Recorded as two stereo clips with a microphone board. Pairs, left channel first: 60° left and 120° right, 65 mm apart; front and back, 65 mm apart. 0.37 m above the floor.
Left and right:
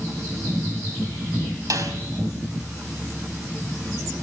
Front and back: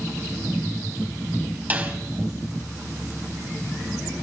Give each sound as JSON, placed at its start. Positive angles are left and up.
{"t": 1.7, "sound": "a snare drum", "azimuth_deg": -120, "distance_m": 3.0}